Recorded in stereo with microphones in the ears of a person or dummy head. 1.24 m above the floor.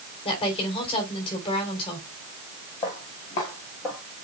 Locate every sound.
0.2 s a woman speaking: 30° left (ahead or behind), 3.5 m
2.8 s footsteps: 20° left (ahead or behind), 1.4 m; by 4.0 s 5° left (ahead or behind), 1.2 m